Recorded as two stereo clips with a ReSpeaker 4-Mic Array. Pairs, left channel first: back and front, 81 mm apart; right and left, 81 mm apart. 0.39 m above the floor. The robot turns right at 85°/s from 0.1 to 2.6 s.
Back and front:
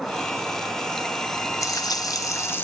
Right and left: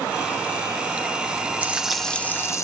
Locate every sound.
1.6 s frying: 150° left, 1.0 m; by 2.6 s 125° right, 1.0 m